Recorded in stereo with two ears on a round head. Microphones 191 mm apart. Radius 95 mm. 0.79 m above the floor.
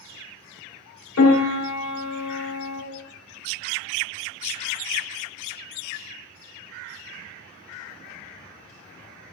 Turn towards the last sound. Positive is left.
turn(degrees=75)  # may be behind; listen again after turning